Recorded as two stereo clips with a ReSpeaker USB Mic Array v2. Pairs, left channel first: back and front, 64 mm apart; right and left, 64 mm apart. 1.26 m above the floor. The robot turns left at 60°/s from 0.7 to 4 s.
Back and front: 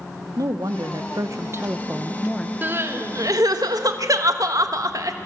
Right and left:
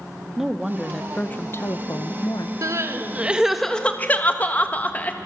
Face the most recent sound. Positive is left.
turn(degrees=-25)